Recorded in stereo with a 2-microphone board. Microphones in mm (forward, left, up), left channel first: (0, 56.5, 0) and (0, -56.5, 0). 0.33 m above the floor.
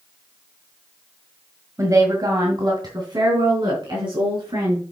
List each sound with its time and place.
1.8 s a woman speaking: 30° right (ahead or behind), 1.7 m; by 4.8 s 45° right (ahead or behind), 4.5 m